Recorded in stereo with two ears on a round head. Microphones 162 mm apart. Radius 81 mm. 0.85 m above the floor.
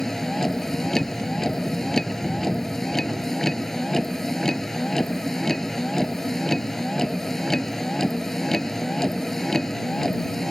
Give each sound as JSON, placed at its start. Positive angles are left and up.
{"t": 0.0, "sound": "a vehicle", "side_deg": 5}